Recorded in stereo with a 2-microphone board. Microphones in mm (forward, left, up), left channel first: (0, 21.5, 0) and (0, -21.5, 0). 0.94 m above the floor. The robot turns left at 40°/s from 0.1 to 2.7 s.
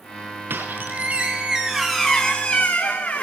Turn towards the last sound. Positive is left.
turn(degrees=145)